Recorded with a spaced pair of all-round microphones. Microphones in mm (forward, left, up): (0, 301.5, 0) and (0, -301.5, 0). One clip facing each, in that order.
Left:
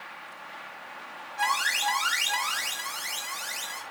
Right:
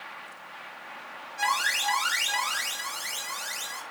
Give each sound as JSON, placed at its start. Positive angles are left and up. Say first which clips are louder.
{"t": 1.4, "sound": "an alarm", "louder": "left 1 dB", "side_deg": 15, "distance_m": 4.5}